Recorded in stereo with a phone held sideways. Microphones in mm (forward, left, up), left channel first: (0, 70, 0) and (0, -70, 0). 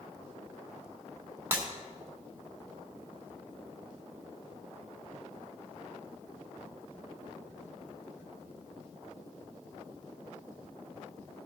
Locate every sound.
1.5 s breaking glass: 15° right (ahead or behind), 1.8 m